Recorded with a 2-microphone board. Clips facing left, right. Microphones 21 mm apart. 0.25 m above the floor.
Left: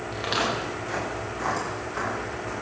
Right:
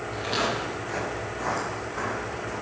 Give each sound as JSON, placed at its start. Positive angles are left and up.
{"t": 0.1, "sound": "footsteps", "side_deg": 40, "distance_m": 7.5}